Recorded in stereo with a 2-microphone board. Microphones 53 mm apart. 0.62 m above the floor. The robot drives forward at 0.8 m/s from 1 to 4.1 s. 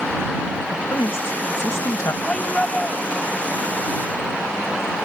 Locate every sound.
0.7 s a woman speaking: 75° left (ahead or behind); by 2.1 s 70° left (ahead or behind)
2.2 s a shout: 15° left (ahead or behind)